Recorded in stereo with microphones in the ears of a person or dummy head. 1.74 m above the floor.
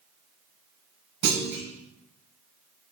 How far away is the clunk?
About 0.9 m.